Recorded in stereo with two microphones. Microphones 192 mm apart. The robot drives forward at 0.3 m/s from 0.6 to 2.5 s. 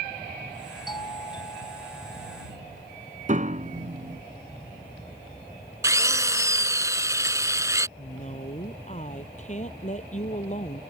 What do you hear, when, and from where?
0.9 s a doorbell: 25° left (ahead or behind)
3.3 s a piano: 40° right (ahead or behind)
5.8 s a drill: 15° right (ahead or behind)
8.0 s a woman speaking: 40° left (ahead or behind)